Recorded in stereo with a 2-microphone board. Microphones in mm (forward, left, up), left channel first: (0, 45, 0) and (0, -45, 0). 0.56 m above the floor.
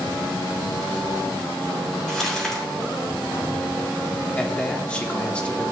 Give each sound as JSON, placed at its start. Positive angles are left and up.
{"t": 2.1, "sound": "crumpling", "side_deg": 5, "distance_m": 3.5}
{"t": 4.4, "sound": "a man speaking", "side_deg": 15, "distance_m": 1.2}